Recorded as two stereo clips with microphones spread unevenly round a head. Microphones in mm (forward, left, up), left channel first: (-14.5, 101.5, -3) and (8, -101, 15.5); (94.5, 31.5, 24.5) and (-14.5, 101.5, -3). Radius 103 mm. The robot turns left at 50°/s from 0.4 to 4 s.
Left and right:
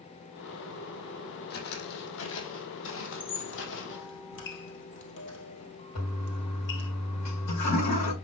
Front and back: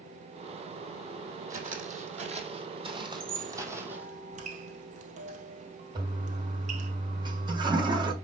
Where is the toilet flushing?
90° left, 4 m.